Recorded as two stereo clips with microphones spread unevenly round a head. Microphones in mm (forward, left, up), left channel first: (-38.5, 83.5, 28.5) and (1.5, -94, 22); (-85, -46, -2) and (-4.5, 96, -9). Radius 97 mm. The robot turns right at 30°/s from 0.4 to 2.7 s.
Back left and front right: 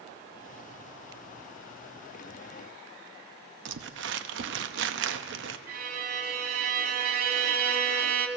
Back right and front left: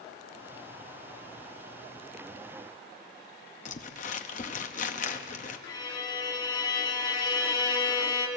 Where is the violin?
65° right, 1.4 m.